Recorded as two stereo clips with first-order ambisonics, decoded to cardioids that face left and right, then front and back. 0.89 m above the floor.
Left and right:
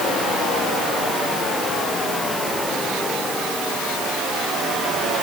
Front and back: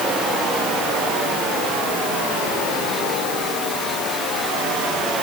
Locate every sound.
Only background noise.